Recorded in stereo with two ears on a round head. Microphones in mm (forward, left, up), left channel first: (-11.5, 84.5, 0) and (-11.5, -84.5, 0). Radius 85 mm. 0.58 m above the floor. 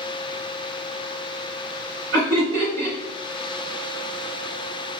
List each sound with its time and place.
2.1 s laughter: 65° right (ahead or behind), 2 m